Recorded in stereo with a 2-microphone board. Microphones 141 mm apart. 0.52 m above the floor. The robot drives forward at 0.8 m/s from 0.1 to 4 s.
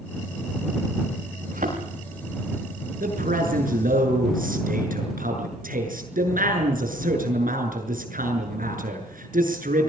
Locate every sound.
1.5 s a thud: 70° right (ahead or behind), 9.5 m; by 1.8 s 75° right (ahead or behind), 9.5 m
3.0 s a man speaking: 80° right, 7 m